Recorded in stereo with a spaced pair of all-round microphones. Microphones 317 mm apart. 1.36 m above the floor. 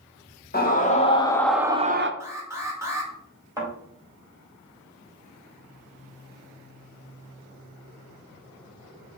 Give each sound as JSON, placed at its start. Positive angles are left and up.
{"t": 0.5, "sound": "a scream", "side_deg": 30, "distance_m": 1.1}
{"t": 2.2, "sound": "an alarm", "side_deg": -10, "distance_m": 1.0}
{"t": 3.6, "sound": "a thud", "side_deg": -10, "distance_m": 1.9}